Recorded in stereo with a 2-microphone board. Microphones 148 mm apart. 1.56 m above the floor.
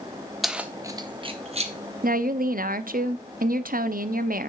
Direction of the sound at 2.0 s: 75° right (ahead or behind).